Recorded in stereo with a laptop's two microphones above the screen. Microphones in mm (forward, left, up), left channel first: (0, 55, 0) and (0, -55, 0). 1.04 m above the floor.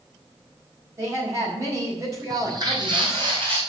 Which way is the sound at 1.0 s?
30° right (ahead or behind).